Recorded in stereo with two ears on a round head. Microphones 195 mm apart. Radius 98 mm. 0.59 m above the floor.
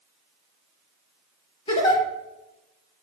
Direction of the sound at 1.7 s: 25° left (ahead or behind).